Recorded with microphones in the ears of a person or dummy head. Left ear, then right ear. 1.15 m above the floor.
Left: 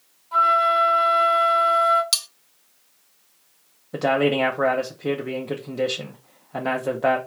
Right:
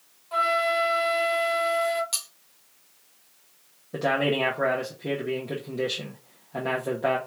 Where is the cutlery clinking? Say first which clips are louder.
Left 9 dB; 55° left (ahead or behind), 0.7 m.